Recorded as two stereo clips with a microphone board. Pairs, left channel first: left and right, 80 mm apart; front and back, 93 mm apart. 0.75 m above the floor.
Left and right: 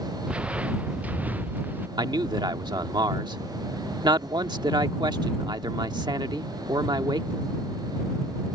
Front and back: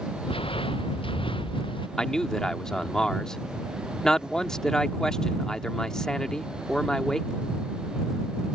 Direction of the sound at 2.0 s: 80° right.